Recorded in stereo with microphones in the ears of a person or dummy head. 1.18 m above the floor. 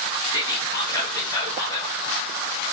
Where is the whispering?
15° left (ahead or behind), 0.9 m.